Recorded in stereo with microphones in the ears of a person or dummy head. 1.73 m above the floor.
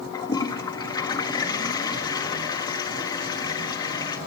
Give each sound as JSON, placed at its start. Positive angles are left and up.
{"t": 0.1, "sound": "a toilet flushing", "side_deg": 25, "distance_m": 1.2}